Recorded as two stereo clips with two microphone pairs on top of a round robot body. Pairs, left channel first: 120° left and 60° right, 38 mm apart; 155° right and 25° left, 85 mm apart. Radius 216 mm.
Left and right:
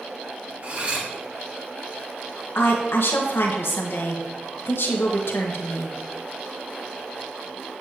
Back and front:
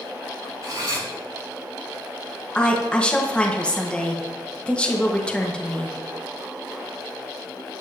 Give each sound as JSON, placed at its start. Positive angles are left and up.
{"t": 0.6, "sound": "cutlery clinking", "azimuth_deg": -10, "distance_m": 5.0}
{"t": 2.5, "sound": "a woman speaking", "azimuth_deg": 125, "distance_m": 1.7}